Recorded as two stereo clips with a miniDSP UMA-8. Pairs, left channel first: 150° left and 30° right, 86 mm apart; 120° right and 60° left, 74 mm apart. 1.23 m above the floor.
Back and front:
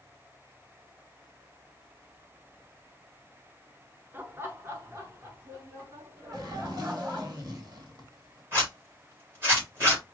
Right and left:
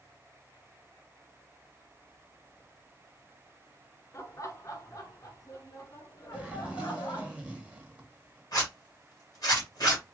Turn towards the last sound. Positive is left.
turn(degrees=-90)